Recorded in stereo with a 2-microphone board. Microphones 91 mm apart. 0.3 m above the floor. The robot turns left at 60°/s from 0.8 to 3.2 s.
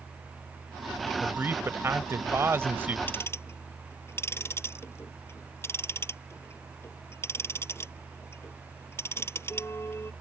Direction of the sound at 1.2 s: 35° right.